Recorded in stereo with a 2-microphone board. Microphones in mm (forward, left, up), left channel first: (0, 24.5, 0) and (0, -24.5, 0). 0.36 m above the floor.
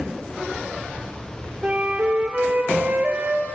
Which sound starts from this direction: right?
A flute, at 1.6 s.